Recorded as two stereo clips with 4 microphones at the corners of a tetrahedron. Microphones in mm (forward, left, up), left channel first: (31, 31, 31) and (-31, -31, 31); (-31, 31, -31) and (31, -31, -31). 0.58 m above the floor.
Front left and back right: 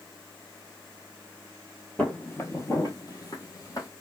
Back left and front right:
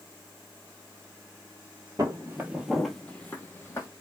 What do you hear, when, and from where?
2.0 s footsteps: 20° right, 0.8 m; by 3.9 s 85° left, 1.1 m